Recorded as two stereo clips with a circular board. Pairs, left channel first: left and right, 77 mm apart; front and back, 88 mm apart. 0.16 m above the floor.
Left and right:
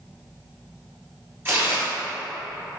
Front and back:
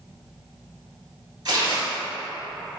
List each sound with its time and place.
1.4 s tearing paper: 145° right, 1.6 m